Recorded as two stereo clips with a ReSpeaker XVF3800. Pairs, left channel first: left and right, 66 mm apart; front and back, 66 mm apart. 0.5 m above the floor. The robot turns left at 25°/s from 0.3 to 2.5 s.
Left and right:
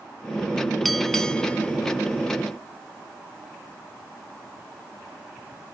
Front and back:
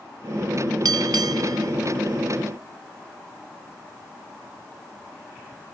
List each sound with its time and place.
0.8 s a bell: straight behind; by 1.7 s 160° left